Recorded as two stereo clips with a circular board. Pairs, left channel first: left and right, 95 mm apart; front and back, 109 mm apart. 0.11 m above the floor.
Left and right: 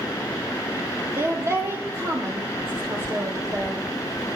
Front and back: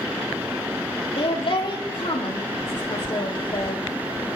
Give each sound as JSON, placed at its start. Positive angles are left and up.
{"t": 1.2, "sound": "a woman speaking", "azimuth_deg": -30, "distance_m": 3.5}